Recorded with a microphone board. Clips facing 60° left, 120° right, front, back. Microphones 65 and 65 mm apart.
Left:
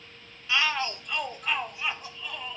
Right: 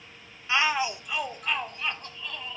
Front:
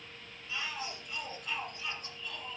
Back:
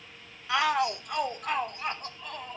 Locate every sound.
0.5 s a shout: 175° left, 0.5 m; by 2.6 s 140° left, 1.6 m